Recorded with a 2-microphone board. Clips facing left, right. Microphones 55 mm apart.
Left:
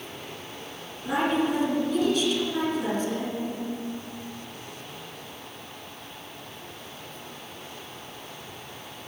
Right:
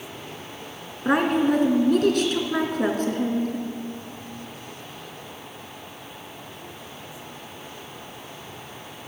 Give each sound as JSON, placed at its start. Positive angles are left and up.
{"t": 1.1, "sound": "a woman speaking", "side_deg": -55, "distance_m": 2.5}